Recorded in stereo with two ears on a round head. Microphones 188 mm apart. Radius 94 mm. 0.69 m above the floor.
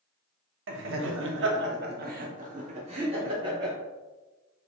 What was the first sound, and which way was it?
Laughter, 60° right (ahead or behind).